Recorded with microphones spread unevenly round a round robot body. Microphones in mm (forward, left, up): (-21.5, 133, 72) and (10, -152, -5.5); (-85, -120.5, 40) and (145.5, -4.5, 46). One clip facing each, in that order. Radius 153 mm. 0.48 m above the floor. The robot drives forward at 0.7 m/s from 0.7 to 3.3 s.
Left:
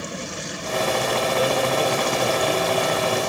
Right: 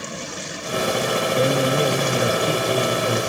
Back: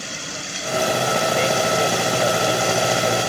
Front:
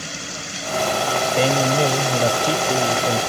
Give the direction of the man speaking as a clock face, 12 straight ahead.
1 o'clock.